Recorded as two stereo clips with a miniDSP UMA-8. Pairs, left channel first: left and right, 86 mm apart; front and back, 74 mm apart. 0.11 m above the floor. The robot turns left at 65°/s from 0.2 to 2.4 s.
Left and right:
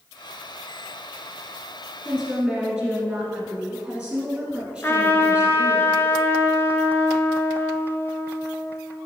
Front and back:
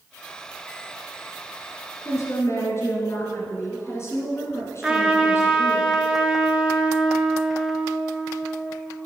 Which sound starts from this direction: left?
A trumpet, at 4.8 s.